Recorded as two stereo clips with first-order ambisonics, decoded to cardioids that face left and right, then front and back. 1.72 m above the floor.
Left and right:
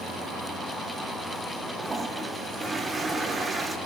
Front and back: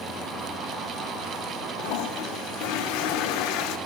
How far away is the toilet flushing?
About 1.7 m.